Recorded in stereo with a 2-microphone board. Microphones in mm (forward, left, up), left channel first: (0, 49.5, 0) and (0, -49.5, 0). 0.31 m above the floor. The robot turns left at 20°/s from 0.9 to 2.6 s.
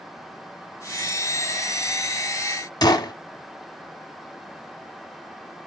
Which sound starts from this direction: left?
A gunshot, at 2.8 s.